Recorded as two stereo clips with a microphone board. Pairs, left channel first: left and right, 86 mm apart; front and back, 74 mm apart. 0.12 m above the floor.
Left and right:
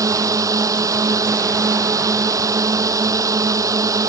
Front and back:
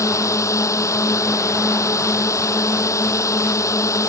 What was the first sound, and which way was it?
A drone, 45° right.